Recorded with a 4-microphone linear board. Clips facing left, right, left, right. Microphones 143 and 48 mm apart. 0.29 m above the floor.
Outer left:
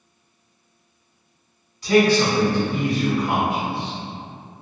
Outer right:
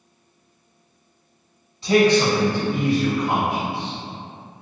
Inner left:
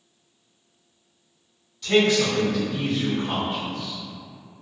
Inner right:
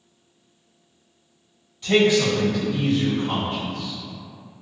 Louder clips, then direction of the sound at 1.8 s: Even, inner right 2 dB; 25° right (ahead or behind).